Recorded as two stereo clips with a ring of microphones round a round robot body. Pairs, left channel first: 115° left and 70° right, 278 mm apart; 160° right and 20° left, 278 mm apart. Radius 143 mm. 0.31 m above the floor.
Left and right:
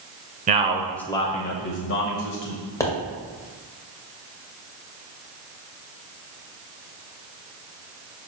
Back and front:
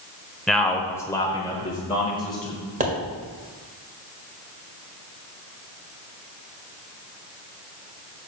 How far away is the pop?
About 1.6 m.